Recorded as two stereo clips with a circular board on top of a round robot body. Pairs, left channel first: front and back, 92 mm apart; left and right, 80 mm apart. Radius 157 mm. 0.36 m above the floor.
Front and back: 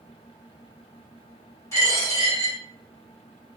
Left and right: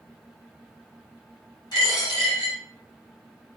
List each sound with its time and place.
1.7 s a dropped coin: 60° left, 1.6 m